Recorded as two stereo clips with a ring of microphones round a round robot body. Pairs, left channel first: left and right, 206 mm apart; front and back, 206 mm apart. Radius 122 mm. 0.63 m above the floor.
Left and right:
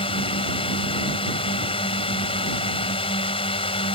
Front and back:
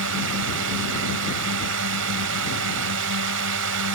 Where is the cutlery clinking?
No cutlery clinking in this recording.